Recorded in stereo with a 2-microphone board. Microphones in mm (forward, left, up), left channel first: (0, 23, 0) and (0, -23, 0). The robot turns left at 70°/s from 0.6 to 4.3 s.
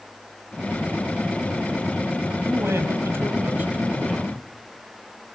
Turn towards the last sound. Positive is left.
turn(degrees=175)